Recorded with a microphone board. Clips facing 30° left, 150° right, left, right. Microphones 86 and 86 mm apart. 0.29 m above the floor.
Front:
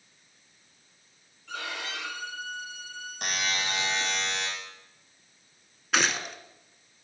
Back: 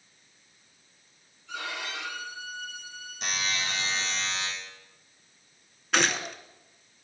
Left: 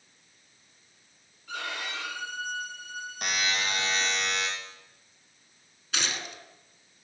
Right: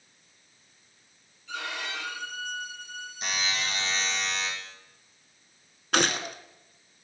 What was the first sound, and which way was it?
A violin, 50° left.